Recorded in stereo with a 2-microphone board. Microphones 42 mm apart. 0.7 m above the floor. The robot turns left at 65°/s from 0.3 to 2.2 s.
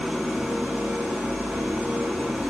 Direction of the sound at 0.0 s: 10° right.